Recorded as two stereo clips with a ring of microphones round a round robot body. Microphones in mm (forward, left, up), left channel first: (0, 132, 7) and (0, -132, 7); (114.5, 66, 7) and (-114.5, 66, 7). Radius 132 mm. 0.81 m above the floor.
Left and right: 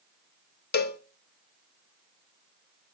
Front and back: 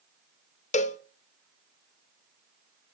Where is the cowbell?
50° left, 0.8 m.